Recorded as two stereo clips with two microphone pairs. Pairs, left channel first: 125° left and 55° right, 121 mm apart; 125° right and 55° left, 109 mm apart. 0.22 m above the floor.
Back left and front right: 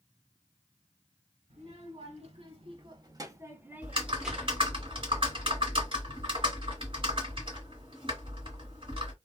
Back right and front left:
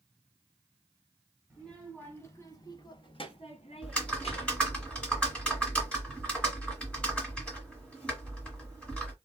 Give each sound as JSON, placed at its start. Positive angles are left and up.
{"t": 1.5, "sound": "a child speaking", "azimuth_deg": -40, "distance_m": 1.1}
{"t": 3.8, "sound": "typing on a keyboard", "azimuth_deg": -45, "distance_m": 1.3}